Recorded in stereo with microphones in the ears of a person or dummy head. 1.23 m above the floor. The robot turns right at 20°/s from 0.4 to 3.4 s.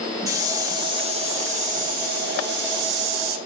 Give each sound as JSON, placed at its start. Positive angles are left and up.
{"t": 0.3, "sound": "a hiss", "azimuth_deg": -165, "distance_m": 1.5}